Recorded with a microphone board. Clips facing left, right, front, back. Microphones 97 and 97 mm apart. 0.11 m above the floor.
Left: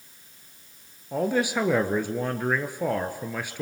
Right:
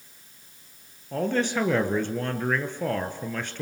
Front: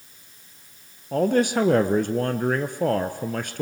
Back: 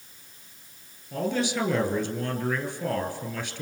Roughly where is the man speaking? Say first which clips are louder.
Left 1 dB, front 7 dB; ahead.